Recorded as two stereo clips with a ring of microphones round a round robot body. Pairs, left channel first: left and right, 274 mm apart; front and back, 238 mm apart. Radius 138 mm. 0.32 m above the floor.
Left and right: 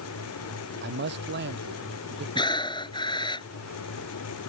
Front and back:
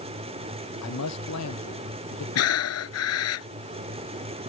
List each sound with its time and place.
0.8 s a man speaking: 35° right
2.4 s breathing: 15° left